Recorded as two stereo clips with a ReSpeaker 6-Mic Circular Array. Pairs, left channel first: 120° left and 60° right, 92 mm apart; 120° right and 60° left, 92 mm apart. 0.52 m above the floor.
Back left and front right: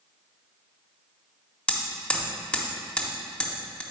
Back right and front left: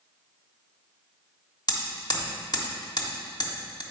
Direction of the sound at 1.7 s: 165° right.